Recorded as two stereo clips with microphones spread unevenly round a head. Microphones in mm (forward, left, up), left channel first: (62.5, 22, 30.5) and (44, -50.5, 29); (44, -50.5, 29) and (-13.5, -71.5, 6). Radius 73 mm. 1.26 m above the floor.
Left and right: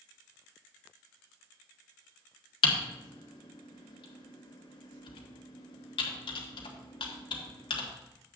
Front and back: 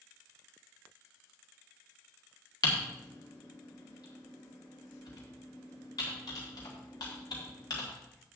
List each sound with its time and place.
2.6 s typing on a keyboard: 75° left, 1.4 m